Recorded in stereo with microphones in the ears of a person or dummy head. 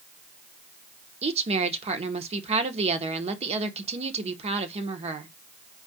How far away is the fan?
I don't hear a fan.